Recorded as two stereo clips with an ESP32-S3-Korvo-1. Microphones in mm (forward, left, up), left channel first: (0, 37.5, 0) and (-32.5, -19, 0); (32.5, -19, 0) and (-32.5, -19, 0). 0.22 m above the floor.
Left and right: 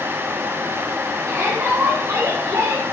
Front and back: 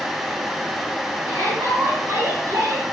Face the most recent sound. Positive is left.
turn(degrees=-150)